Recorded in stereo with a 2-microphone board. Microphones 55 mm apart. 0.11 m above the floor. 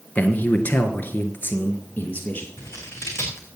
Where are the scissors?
55° left (ahead or behind), 3 m.